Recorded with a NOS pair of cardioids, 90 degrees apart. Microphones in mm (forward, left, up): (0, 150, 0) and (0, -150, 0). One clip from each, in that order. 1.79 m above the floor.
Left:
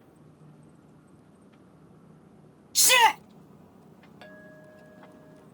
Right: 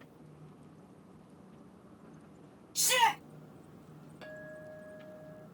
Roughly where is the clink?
Ahead left.